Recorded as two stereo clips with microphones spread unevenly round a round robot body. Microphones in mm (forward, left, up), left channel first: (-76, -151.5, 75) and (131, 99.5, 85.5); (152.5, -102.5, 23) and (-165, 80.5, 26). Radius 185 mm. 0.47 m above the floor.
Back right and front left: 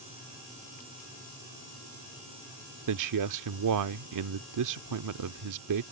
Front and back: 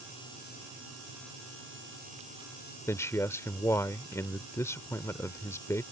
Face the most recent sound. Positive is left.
turn(degrees=50)